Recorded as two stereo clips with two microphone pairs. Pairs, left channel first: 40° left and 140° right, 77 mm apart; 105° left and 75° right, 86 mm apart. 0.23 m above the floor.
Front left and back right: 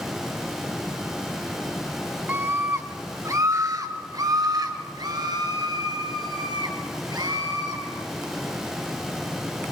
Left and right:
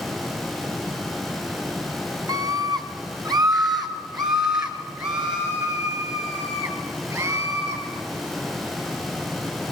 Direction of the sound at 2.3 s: 85° right.